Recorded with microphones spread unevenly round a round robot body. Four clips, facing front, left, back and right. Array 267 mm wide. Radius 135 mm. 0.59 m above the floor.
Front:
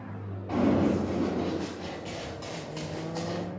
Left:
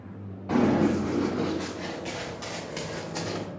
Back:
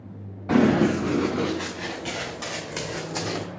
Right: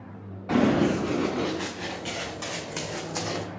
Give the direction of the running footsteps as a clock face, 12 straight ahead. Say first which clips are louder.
Right 1 dB, back 5 dB; 6 o'clock.